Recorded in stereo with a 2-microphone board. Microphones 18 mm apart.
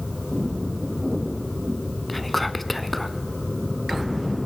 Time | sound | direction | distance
2.1 | whispering | 5° left (ahead or behind) | 1.0 m